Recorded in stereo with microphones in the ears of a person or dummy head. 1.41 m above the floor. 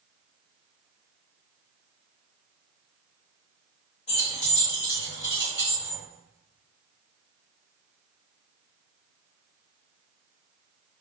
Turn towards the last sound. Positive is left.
turn(degrees=35)  # may be behind; listen again after turning